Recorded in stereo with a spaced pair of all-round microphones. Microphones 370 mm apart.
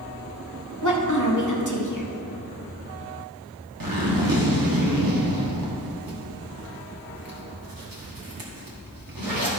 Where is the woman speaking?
55° left (ahead or behind), 1.3 m.